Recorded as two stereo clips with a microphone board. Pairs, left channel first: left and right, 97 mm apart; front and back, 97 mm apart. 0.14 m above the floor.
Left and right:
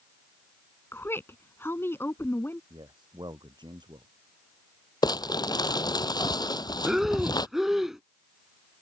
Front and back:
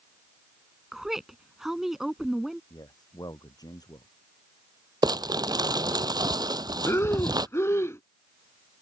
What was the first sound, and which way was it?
A woman speaking, 100° left.